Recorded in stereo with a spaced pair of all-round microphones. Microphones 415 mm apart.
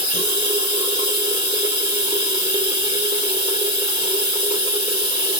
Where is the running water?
10° right (ahead or behind), 1.9 m.